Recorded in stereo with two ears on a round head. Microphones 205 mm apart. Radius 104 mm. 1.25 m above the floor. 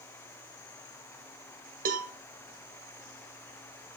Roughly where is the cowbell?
Right.